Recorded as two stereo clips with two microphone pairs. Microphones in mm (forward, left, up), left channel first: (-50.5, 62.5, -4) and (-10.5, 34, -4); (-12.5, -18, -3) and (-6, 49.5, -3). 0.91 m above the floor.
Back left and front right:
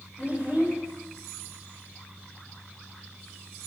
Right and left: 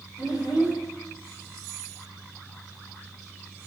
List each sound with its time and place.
0.2 s a child speaking: 95° right, 2.5 m